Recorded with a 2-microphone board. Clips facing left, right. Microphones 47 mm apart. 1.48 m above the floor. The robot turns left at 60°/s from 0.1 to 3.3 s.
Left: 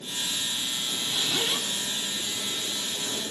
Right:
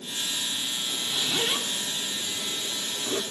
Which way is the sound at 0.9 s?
20° left (ahead or behind).